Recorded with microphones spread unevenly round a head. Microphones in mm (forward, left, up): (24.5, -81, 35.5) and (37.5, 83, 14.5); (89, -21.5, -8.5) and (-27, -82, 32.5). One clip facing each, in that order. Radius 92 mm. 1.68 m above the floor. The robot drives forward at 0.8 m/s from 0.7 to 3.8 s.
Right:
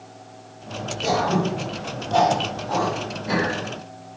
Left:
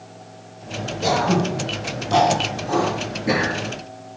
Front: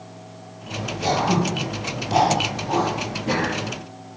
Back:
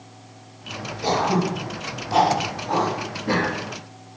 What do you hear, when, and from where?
1.0 s throat clearing: 85° left, 3 m; by 3.5 s 120° left, 3.5 m